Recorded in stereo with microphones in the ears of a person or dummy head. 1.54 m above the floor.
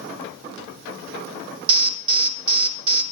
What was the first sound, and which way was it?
An alarm, 30° right (ahead or behind).